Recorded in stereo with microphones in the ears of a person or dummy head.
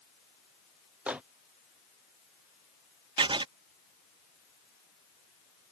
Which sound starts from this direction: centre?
A microwave, at 1.1 s.